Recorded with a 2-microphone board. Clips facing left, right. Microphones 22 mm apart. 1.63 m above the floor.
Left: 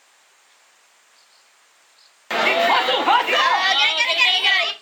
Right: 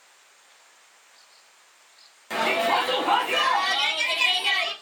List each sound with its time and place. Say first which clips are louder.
2.3 s a shout: left 6 dB; 35° left (ahead or behind), 0.8 m